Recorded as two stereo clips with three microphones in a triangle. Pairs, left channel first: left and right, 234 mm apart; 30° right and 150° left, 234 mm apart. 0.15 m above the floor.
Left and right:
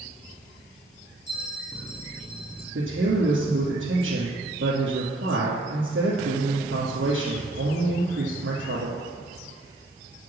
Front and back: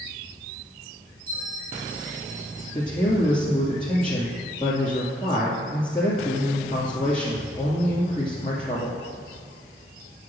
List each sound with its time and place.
1.3 s a bell: 130° left, 1.8 m
2.8 s a man speaking: 95° right, 2 m